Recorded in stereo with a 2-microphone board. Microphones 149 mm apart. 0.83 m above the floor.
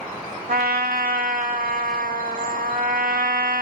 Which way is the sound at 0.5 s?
75° right (ahead or behind).